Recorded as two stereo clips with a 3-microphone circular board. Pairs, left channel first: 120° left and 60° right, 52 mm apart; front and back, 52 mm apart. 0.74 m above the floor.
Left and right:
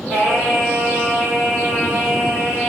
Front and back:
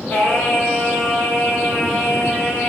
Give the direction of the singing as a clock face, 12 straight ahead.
12 o'clock.